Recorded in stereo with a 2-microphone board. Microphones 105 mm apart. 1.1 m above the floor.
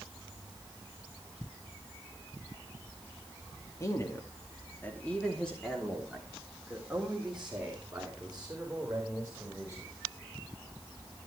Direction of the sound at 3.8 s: 35° left (ahead or behind).